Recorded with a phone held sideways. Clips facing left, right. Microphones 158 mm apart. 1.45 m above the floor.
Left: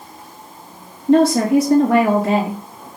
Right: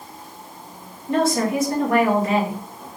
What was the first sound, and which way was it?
A woman speaking, 70° left (ahead or behind).